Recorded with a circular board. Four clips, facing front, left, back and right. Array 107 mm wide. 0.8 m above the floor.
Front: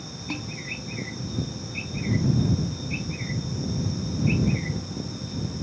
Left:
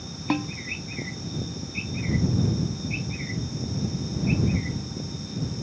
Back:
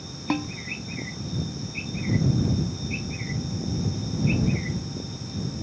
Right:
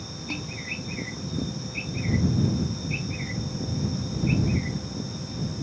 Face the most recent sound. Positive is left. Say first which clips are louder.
# left 11 dB, back 8 dB
turn(degrees=125)